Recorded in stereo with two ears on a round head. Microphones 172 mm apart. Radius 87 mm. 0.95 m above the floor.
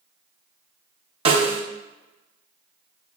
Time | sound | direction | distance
1.2 | a snare drum | 30° right (ahead or behind) | 0.5 m